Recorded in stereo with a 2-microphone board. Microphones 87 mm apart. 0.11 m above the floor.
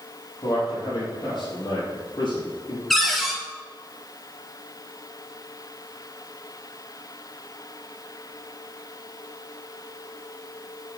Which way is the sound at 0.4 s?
45° left (ahead or behind).